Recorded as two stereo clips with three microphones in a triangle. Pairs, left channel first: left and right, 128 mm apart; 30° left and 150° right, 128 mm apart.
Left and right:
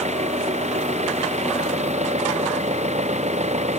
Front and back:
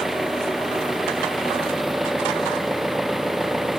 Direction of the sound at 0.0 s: 60° right.